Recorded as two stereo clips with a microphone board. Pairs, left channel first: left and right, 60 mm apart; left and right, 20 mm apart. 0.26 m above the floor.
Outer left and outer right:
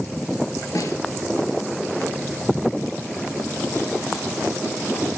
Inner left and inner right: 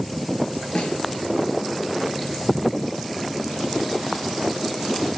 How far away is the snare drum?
About 3 m.